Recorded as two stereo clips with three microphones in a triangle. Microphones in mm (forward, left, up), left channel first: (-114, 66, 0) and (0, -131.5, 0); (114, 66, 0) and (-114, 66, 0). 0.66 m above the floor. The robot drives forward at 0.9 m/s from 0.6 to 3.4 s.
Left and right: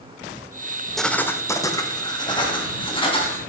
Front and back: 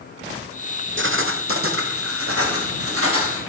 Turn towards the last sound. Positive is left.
turn(degrees=-175)